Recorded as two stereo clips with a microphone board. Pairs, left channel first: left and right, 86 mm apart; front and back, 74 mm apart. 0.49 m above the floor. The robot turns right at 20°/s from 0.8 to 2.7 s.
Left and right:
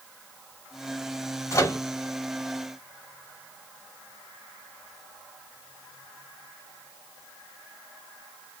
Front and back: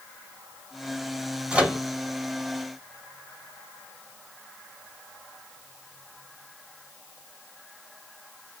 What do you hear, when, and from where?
1.5 s a microwave: 110° left, 0.7 m; by 1.8 s 120° left, 0.7 m